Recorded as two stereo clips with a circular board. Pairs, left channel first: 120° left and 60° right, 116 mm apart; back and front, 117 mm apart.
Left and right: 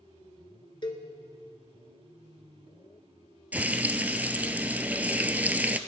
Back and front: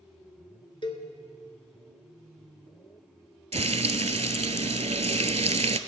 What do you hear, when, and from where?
0.8 s a cowbell: 155° left, 1.2 m
3.5 s frying: 15° left, 0.6 m